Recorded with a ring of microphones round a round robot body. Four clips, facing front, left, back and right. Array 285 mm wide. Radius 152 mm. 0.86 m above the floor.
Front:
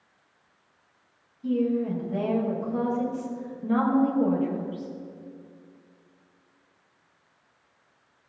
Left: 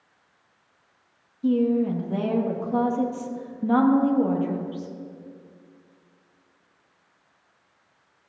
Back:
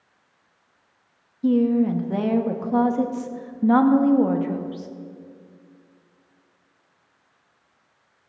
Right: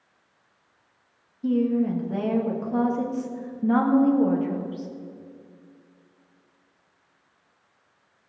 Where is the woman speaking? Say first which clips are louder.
Left 1 dB, back 6 dB; 175° left, 1.7 m.